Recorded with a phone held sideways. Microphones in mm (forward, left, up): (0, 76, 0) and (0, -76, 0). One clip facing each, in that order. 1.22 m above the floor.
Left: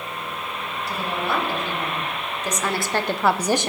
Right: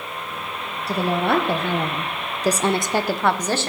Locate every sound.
0.9 s a woman speaking: 75° right (ahead or behind), 1.2 m; by 3.7 s 20° left (ahead or behind), 0.7 m